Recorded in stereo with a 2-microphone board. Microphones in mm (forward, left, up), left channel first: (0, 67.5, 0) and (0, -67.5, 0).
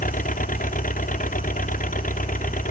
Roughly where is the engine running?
Left.